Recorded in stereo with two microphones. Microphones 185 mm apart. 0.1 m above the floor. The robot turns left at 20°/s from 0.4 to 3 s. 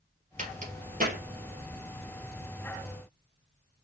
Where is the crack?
40° right (ahead or behind), 2.5 m; by 1.2 s 50° right (ahead or behind), 2.5 m.